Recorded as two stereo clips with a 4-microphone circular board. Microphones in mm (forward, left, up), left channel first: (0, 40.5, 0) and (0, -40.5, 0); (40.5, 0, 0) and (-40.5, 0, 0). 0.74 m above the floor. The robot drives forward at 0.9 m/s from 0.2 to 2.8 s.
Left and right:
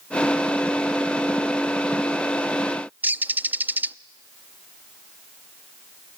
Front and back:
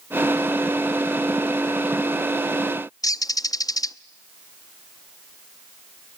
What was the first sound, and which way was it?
A bird, 25° right.